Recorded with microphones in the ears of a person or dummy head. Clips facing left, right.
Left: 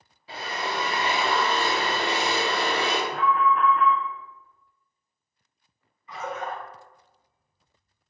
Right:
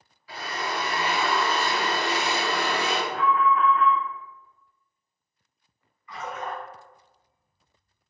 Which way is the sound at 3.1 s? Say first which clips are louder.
Right 1 dB; 80° left.